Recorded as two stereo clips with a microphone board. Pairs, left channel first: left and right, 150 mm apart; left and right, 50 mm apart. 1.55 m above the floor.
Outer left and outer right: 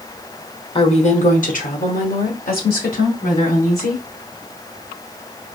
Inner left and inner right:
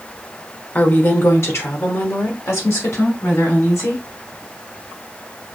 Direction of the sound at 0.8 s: 35° left (ahead or behind).